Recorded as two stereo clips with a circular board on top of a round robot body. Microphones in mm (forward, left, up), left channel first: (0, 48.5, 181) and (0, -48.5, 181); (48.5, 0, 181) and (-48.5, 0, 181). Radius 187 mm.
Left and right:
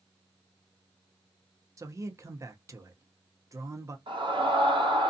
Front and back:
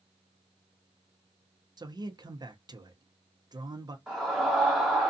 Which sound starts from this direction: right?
A scream, at 4.1 s.